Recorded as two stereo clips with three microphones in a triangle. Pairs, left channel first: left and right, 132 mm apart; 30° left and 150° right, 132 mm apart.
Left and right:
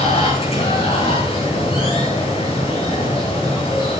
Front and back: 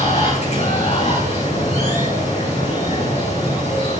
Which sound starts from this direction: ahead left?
Running water, at 0.0 s.